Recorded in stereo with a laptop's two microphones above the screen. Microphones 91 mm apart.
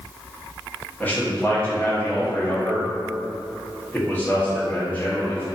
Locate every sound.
1.0 s a man speaking: 20° left (ahead or behind), 0.8 m